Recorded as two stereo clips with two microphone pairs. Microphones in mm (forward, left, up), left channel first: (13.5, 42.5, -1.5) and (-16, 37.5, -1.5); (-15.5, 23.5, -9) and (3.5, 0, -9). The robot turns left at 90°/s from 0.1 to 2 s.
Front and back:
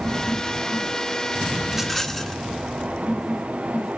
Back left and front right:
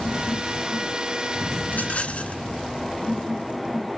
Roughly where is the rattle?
Behind left.